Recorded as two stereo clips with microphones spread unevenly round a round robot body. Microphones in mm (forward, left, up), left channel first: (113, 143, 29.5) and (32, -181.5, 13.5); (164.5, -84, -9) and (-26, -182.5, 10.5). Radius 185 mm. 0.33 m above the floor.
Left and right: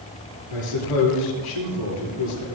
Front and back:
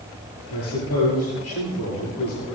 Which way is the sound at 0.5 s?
70° left.